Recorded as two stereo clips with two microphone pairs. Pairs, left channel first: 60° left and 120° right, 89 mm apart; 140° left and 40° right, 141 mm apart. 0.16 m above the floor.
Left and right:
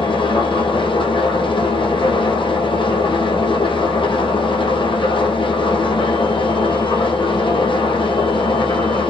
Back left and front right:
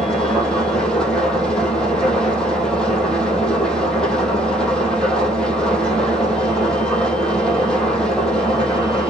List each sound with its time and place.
0.0 s an engine running: 55° left, 3.5 m